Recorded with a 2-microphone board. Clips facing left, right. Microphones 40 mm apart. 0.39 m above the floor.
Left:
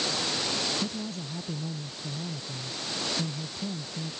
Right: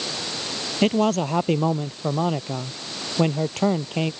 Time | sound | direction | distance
0.8 | a man speaking | 75° right (ahead or behind) | ?